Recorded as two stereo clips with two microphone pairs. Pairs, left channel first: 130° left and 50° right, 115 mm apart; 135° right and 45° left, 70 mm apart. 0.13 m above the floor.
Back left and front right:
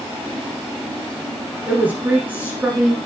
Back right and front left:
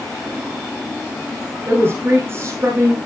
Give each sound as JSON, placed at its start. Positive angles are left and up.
{"t": 1.7, "sound": "a woman speaking", "azimuth_deg": 20, "distance_m": 1.8}